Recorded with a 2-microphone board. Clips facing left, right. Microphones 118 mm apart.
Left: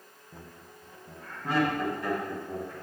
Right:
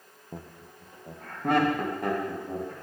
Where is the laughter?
55° right (ahead or behind), 0.6 m; by 2.7 s 50° right (ahead or behind), 2.5 m.